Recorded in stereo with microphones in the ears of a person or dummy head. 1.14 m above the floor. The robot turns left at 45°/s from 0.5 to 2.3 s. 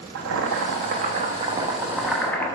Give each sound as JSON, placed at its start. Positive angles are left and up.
{"t": 0.1, "sound": "boiling", "azimuth_deg": -110, "distance_m": 0.9}